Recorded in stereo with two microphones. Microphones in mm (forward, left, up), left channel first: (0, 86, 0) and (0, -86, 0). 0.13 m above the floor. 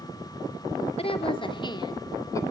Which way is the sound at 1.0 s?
35° left (ahead or behind).